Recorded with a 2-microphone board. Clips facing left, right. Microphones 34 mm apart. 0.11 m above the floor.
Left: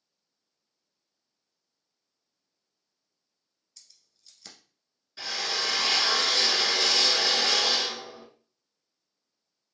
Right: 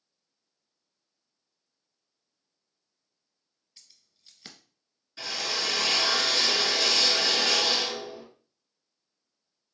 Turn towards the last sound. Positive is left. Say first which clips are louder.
# even
turn(degrees=5)  # may be behind; listen again after turning